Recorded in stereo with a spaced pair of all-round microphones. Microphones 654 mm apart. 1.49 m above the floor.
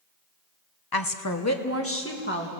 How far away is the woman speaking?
About 0.9 m.